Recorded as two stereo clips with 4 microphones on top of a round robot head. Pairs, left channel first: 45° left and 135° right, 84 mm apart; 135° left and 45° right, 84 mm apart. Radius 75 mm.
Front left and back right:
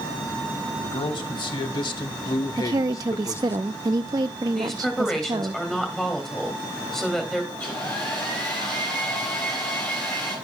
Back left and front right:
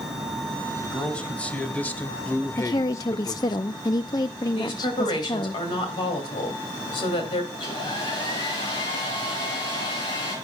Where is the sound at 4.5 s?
130° left, 3 m.